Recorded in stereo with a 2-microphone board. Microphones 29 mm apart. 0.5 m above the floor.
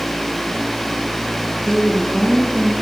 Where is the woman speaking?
15° right (ahead or behind), 5 m.